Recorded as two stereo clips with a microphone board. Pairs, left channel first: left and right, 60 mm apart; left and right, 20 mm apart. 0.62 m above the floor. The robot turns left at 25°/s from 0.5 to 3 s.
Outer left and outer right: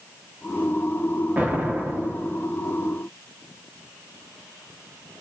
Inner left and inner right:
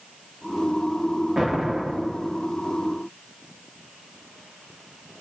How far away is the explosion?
About 0.8 m.